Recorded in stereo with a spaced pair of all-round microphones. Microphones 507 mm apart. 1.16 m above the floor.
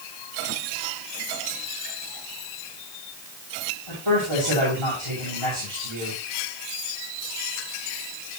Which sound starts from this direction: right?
A man speaking, at 3.9 s.